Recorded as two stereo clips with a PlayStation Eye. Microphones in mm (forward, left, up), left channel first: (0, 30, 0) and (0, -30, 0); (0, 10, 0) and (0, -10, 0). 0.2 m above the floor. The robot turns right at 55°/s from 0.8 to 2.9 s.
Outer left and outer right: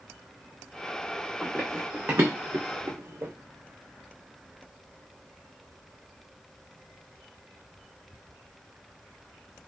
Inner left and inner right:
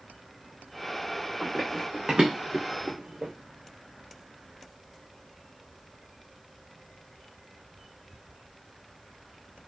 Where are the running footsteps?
20° left (ahead or behind), 1.2 m; by 3.3 s 45° right (ahead or behind), 0.9 m.